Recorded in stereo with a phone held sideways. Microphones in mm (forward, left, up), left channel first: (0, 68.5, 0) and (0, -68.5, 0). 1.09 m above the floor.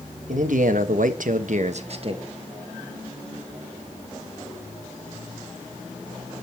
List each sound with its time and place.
0.3 s a man speaking: 65° right (ahead or behind), 1.3 m; by 2.3 s 35° right (ahead or behind), 1.1 m